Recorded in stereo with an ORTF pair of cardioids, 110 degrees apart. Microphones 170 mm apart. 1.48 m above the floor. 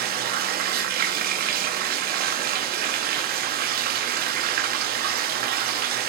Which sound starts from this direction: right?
Running water, at 0.0 s.